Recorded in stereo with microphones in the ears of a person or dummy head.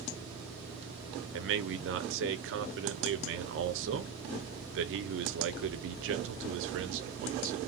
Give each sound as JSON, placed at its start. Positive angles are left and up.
{"t": 1.3, "sound": "a man speaking", "side_deg": -65, "distance_m": 0.7}